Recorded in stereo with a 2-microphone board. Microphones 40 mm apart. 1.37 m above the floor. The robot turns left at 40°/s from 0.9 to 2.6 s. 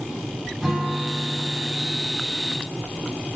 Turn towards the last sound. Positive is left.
turn(degrees=-70)